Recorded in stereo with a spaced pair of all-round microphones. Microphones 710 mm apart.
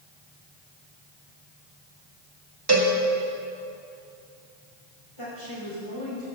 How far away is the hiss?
No hiss in this recording.